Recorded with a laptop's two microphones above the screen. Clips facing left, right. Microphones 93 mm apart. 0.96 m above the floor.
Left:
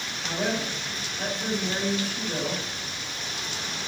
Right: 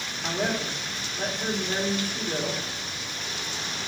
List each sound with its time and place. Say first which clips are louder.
0.2 s a woman speaking: even; 65° right (ahead or behind), 2.5 m